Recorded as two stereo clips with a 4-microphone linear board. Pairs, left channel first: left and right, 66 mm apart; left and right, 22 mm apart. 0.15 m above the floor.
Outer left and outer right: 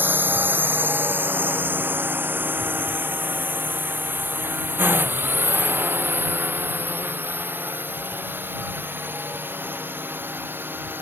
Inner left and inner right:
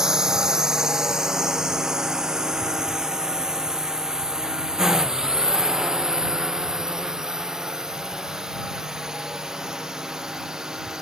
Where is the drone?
30° right (ahead or behind).